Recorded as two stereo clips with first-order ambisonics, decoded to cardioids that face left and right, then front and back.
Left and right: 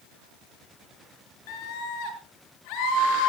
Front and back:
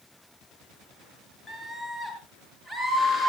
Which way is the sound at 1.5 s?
80° left.